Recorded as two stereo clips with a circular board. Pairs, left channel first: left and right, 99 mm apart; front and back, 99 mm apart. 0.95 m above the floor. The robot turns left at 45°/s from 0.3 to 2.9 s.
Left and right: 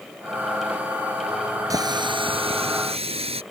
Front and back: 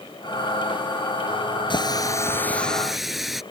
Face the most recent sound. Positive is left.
turn(degrees=-90)